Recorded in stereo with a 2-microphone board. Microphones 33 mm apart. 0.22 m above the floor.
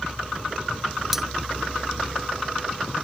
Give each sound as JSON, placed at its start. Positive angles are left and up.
{"t": 1.1, "sound": "cutlery clinking", "side_deg": -10}